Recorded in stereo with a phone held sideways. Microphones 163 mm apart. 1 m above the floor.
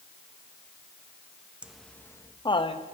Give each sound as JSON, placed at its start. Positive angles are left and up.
{"t": 1.6, "sound": "laughter", "side_deg": -5, "distance_m": 0.6}